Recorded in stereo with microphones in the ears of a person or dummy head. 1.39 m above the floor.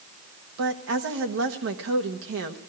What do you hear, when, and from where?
0.6 s a woman speaking: 70° right (ahead or behind), 1.2 m